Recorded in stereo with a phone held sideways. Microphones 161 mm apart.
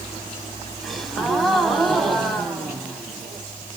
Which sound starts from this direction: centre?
A gasp, at 0.8 s.